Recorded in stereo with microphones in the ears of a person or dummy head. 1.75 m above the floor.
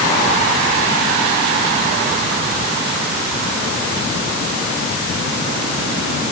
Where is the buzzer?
No buzzer in this recording.